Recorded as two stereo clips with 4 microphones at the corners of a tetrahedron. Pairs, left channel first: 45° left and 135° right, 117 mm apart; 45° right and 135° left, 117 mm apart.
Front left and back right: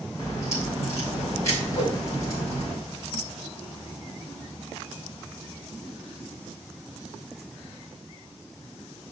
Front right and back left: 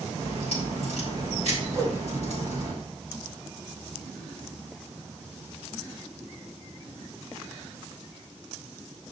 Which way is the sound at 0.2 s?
110° left.